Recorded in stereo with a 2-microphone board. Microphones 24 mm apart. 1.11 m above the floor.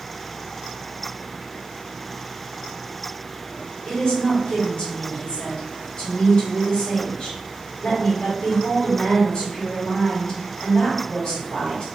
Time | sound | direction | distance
3.9 | a woman speaking | 55° left (ahead or behind) | 1.7 m